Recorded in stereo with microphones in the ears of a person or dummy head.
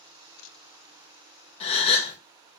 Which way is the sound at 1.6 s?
40° left (ahead or behind).